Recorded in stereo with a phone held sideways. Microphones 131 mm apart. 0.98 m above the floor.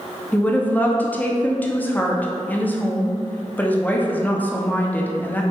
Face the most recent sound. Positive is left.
turn(degrees=15)  # may be behind; listen again after turning